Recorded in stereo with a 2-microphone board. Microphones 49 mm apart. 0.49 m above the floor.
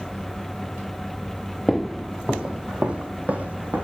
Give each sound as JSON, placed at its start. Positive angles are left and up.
{"t": 1.7, "sound": "footsteps", "side_deg": 5, "distance_m": 0.7}